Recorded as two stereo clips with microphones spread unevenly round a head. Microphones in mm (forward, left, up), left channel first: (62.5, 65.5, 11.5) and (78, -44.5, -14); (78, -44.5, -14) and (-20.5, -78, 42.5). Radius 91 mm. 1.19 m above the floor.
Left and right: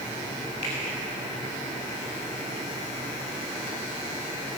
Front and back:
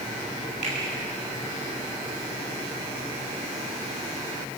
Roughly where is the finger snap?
Behind left.